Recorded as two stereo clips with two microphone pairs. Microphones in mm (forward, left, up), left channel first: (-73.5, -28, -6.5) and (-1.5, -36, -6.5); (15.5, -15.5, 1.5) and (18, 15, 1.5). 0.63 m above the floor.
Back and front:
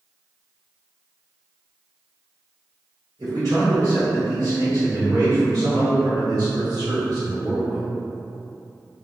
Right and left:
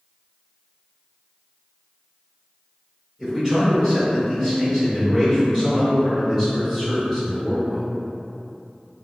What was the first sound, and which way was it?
A man speaking, 10° left.